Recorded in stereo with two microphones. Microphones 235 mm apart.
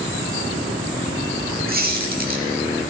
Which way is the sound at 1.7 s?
40° right (ahead or behind).